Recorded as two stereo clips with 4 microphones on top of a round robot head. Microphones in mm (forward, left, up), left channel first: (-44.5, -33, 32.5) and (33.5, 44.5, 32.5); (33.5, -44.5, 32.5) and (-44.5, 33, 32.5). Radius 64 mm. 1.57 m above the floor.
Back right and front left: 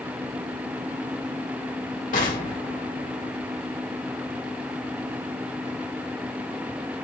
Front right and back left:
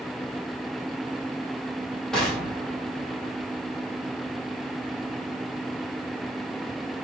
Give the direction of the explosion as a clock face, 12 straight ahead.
4 o'clock.